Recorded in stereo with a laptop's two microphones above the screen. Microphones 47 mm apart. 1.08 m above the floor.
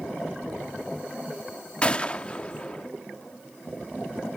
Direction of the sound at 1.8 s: 25° left (ahead or behind).